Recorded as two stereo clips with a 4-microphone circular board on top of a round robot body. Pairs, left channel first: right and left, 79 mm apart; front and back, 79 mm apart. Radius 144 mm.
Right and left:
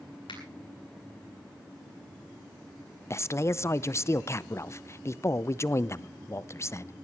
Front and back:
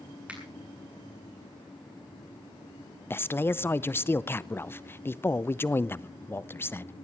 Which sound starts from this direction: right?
A finger snap, at 0.3 s.